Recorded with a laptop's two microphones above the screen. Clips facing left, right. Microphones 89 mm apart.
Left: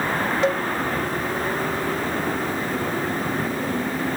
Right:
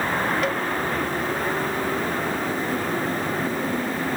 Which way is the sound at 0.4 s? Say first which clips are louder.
Left 3 dB; 25° left (ahead or behind).